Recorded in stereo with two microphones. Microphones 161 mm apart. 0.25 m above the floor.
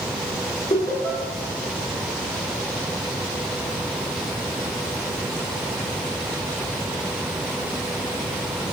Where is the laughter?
55° left (ahead or behind), 2.5 m.